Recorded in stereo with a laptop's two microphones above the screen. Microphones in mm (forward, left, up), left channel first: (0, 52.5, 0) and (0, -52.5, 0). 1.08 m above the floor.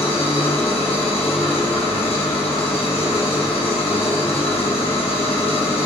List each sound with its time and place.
0.0 s an engine running: 80° left, 0.9 m